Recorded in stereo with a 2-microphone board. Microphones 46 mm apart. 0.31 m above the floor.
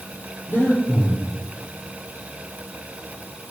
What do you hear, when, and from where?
0.5 s breathing: 45° left (ahead or behind), 7.5 m